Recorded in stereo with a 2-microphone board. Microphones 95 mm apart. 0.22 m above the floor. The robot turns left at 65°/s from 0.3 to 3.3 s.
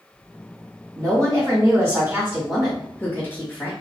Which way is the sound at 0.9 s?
70° right.